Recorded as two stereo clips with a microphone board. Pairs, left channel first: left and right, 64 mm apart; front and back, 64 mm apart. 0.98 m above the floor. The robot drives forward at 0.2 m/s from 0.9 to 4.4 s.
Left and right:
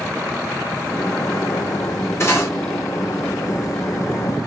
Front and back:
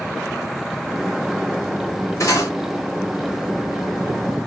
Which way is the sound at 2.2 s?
40° left.